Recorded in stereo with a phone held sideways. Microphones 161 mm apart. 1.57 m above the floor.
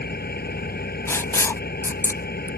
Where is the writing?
15° left (ahead or behind).